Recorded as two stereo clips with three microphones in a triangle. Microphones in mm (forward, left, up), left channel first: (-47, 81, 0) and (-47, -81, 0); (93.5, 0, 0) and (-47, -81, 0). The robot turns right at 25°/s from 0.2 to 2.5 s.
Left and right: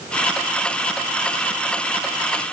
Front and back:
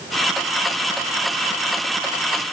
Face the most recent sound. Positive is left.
No sound to turn to.